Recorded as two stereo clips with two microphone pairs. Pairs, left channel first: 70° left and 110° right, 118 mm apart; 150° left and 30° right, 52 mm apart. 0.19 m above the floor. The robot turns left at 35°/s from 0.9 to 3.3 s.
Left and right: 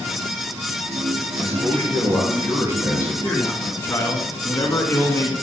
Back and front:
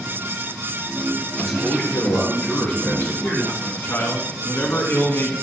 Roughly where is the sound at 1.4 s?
Behind right.